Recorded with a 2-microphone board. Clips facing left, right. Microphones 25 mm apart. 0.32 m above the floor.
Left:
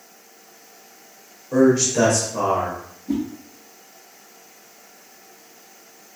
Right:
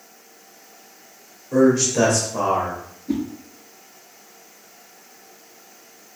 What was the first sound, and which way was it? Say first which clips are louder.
A man speaking: even; 20° left (ahead or behind).